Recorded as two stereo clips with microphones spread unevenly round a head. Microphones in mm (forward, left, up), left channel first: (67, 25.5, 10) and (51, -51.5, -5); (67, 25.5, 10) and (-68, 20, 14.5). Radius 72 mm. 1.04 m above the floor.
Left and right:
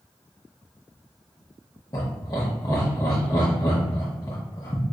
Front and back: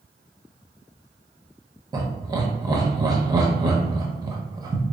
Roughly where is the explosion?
No explosion in this recording.